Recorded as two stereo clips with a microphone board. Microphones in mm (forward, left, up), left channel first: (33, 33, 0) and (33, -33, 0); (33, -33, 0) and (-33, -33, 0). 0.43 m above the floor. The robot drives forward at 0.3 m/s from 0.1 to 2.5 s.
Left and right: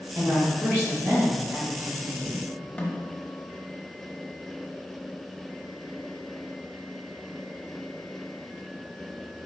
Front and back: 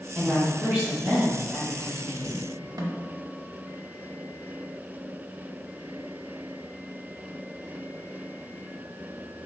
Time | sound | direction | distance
0.1 | a woman speaking | 105° right | 1.6 m
2.8 | a snare drum | 160° left | 0.6 m